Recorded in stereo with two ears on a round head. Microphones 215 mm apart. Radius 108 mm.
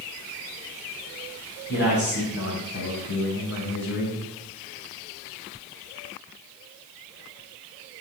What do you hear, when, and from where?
1.7 s a man speaking: 50° left (ahead or behind), 5.5 m; by 4.2 s 75° left (ahead or behind), 6 m